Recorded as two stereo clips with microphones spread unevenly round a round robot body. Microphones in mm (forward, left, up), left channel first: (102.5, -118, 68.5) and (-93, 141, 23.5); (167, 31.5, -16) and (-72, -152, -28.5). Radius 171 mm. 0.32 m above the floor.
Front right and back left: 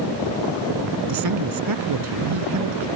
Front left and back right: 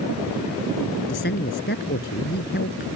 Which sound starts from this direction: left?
A man speaking, at 1.1 s.